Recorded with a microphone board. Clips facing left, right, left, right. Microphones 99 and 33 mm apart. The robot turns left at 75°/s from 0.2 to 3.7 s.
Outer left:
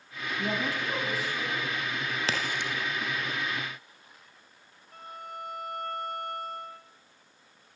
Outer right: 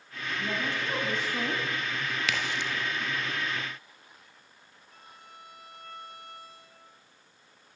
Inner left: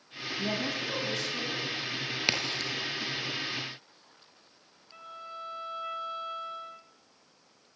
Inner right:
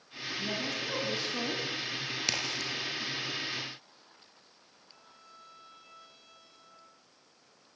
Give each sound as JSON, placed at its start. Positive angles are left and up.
{"t": 0.4, "sound": "a woman speaking", "azimuth_deg": 30, "distance_m": 3.5}
{"t": 2.3, "sound": "a crack", "side_deg": 35, "distance_m": 3.5}
{"t": 4.9, "sound": "a violin", "side_deg": 50, "distance_m": 1.1}